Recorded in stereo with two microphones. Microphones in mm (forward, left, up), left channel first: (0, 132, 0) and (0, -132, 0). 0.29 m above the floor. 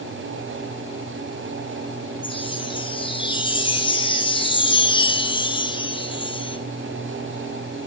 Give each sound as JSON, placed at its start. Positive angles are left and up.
{"t": 2.2, "sound": "a chime", "side_deg": 20, "distance_m": 1.4}